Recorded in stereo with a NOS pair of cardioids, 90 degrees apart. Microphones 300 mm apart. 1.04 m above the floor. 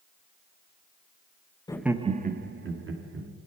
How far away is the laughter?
About 0.6 m.